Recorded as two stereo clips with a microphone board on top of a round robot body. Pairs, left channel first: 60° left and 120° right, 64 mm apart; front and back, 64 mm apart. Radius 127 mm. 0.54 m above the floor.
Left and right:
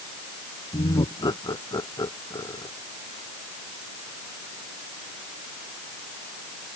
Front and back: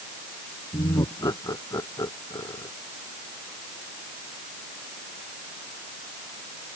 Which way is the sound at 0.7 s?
40° left.